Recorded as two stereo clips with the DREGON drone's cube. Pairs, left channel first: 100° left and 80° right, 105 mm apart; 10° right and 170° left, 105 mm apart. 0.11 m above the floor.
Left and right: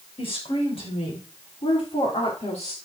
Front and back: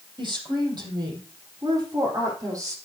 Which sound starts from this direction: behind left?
A woman speaking, at 0.2 s.